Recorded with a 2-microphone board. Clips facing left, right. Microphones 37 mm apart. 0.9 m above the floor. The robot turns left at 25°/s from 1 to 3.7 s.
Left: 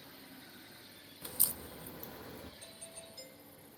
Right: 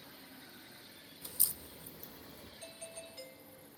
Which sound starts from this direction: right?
A doorbell, at 2.6 s.